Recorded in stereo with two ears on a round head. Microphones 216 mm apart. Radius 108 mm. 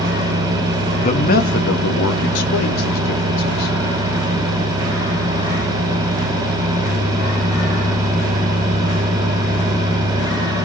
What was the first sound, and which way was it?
A man speaking, 25° left (ahead or behind).